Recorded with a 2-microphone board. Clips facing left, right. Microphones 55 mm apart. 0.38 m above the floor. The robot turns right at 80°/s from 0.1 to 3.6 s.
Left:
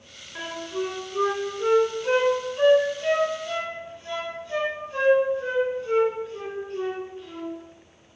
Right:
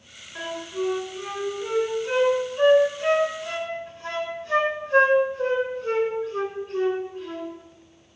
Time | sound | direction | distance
0.3 | a flute | 10° left (ahead or behind) | 2.5 m